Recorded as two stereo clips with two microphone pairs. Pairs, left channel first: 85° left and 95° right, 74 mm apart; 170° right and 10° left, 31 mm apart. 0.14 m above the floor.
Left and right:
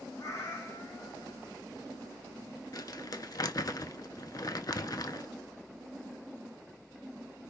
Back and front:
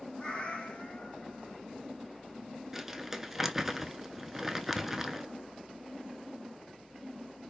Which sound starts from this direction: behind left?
A cat meowing, at 0.2 s.